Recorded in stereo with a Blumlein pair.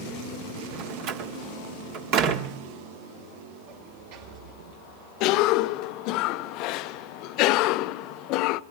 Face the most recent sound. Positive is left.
turn(degrees=40)